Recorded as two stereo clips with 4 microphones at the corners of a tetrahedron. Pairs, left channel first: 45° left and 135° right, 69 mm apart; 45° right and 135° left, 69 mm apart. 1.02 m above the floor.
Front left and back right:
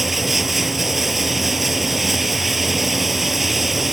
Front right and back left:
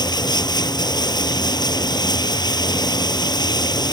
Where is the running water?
45° right.